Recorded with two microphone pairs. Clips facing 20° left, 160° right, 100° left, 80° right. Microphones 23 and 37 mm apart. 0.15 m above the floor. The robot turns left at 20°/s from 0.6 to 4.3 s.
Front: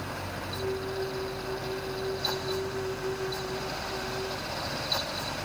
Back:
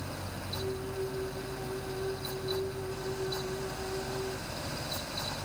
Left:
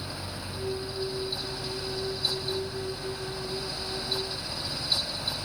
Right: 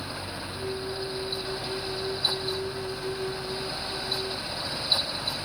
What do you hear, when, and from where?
Only background noise.